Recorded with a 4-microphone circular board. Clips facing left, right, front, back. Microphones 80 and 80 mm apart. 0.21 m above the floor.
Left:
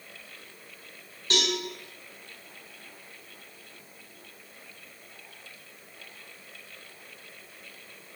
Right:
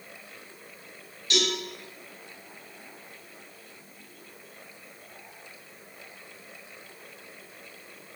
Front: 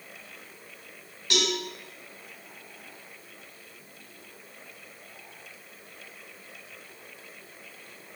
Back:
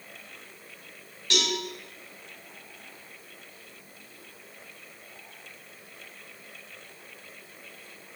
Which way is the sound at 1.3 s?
75° left.